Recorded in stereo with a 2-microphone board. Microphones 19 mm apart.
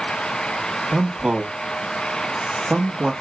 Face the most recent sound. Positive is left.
turn(degrees=-45)  # may be behind; listen again after turning